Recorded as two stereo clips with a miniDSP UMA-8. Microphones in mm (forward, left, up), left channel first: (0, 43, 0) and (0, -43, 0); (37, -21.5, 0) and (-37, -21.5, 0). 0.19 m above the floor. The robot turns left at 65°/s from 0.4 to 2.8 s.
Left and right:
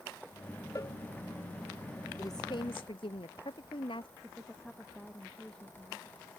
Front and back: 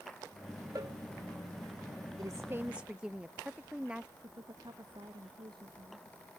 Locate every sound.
0.8 s a cowbell: 145° left; by 1.0 s 130° left
2.2 s a woman speaking: 140° left; by 4.1 s 100° left
4.2 s a woman speaking: 170° left